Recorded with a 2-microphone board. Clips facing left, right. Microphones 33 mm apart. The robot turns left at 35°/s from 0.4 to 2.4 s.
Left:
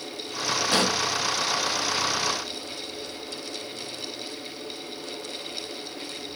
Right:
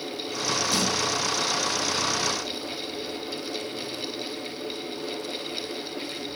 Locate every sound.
0.7 s a pop: 40° left (ahead or behind), 0.9 m